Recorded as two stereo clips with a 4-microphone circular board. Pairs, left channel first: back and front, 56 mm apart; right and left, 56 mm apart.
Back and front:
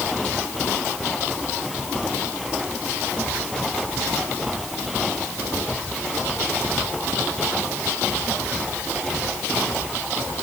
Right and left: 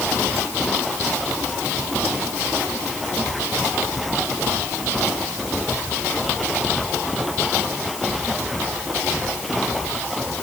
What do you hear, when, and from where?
Only background noise.